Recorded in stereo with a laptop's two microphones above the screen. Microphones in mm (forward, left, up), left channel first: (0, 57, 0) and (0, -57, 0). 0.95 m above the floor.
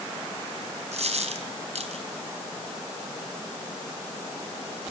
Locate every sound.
0.9 s a dropped coin: 85° right, 4 m